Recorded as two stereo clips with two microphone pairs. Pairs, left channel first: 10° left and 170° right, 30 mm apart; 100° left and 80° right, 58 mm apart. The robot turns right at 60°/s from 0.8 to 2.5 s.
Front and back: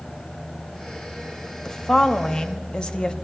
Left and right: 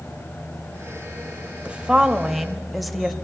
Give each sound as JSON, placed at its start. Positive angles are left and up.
{"t": 1.6, "sound": "a woman speaking", "azimuth_deg": -40, "distance_m": 1.0}